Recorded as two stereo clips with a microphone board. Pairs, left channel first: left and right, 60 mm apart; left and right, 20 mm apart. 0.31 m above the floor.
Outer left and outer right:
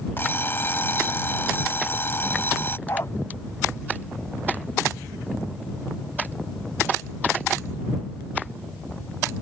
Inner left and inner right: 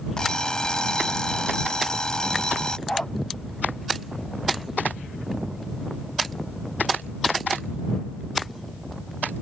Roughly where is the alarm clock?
Left.